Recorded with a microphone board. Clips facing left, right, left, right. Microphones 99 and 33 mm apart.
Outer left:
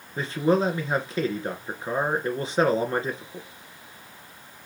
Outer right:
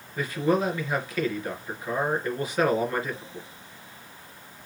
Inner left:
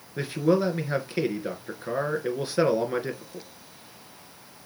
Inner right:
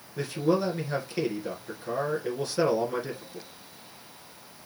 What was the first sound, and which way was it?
A man speaking, 25° left (ahead or behind).